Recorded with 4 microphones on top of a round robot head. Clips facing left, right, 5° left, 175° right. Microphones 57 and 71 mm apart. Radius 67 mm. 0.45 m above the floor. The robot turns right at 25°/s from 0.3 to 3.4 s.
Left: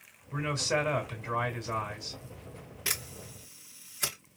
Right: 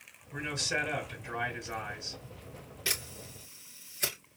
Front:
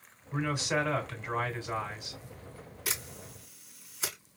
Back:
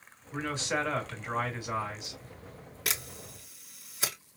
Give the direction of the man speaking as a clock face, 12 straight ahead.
9 o'clock.